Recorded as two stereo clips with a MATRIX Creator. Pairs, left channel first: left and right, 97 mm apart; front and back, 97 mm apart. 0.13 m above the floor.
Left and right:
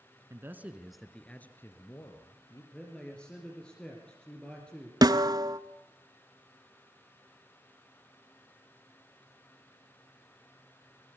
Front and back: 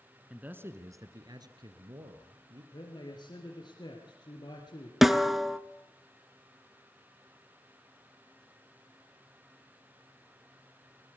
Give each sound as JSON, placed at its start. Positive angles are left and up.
{"t": 0.3, "sound": "a man speaking", "azimuth_deg": -115, "distance_m": 1.3}
{"t": 2.7, "sound": "a man speaking", "azimuth_deg": 15, "distance_m": 2.5}
{"t": 5.0, "sound": "a snare drum", "azimuth_deg": -95, "distance_m": 0.6}